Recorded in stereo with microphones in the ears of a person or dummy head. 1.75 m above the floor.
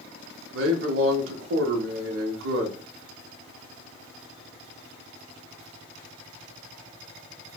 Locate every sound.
0.5 s a man speaking: 90° right, 0.6 m